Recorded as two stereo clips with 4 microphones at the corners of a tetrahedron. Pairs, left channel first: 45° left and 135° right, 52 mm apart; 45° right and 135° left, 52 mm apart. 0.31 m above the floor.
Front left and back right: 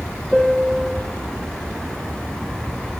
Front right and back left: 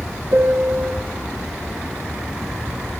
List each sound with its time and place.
0.3 s a piano: 130° left, 0.7 m